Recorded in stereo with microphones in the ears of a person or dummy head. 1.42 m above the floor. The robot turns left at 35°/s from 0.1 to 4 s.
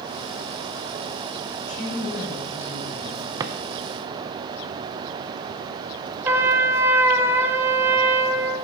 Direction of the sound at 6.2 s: 15° right (ahead or behind).